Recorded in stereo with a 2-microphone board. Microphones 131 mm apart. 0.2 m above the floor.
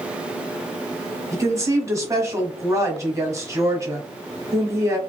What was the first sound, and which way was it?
A woman speaking, 25° right (ahead or behind).